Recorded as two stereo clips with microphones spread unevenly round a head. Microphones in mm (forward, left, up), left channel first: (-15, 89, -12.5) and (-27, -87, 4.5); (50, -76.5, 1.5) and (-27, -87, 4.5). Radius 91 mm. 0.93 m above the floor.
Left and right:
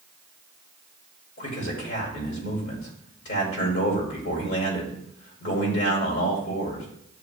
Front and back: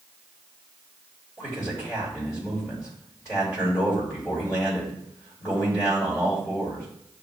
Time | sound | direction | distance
1.4 | a man speaking | 70° left | 1.8 m